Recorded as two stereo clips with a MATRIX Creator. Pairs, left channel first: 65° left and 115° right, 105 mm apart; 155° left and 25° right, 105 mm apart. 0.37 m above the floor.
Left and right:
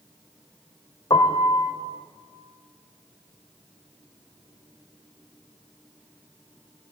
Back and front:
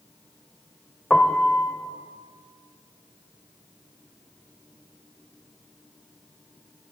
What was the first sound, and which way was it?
A piano, 75° left.